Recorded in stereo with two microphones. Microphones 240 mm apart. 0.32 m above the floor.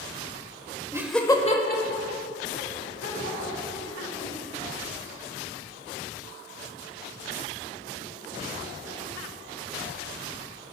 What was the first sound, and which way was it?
Laughter, 15° right (ahead or behind).